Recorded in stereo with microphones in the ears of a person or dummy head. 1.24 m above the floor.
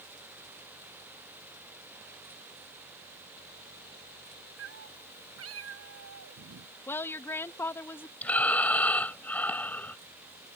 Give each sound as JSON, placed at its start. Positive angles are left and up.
{"t": 4.6, "sound": "a cat meowing", "side_deg": -80}
{"t": 6.9, "sound": "a woman speaking", "side_deg": 15}
{"t": 8.2, "sound": "breathing", "side_deg": 10}